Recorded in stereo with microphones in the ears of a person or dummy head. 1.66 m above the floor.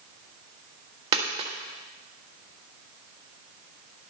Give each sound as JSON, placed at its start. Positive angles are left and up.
{"t": 1.1, "sound": "a dropped coin", "side_deg": -35, "distance_m": 1.6}